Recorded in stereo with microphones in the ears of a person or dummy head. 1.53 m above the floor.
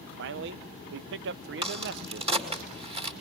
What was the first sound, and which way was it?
A man speaking, 60° right (ahead or behind).